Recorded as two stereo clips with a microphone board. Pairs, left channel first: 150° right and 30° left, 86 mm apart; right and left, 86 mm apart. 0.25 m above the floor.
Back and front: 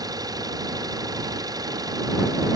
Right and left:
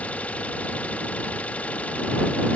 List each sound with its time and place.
0.0 s an engine running: 15° right